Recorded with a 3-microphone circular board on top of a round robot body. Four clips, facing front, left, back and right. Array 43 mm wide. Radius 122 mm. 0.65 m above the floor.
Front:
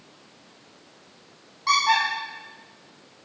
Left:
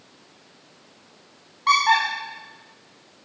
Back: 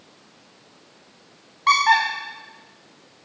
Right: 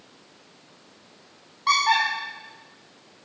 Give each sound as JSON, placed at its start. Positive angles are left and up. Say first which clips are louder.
{"t": 1.7, "sound": "a squeak", "louder": "left 2 dB, back 4 dB", "azimuth_deg": 165, "distance_m": 0.5}